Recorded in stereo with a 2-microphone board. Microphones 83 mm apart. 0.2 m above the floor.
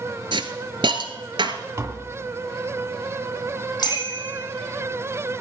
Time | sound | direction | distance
0.3 | a hiss | 75° right (ahead or behind) | 1.4 m
1.8 | tapping | 35° right (ahead or behind) | 1.6 m
3.8 | a bicycle bell | 50° left (ahead or behind) | 5.5 m